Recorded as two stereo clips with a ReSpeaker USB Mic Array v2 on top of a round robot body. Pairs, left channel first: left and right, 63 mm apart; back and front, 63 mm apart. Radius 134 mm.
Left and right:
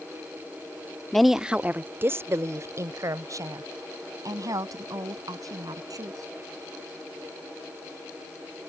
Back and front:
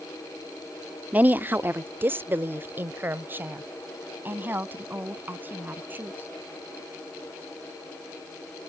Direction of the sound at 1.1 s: 15° left.